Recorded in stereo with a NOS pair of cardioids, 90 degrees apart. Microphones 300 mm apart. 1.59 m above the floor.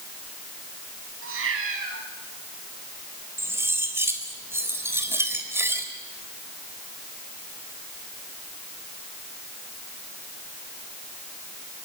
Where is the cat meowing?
50° right, 6 m.